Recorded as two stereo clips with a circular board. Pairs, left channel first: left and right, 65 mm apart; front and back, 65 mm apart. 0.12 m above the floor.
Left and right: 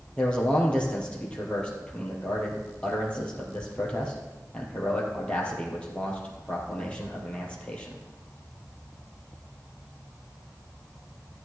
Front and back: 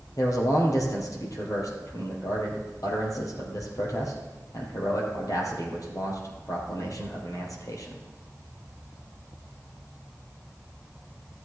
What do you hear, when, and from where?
0.2 s a man speaking: 20° left, 3 m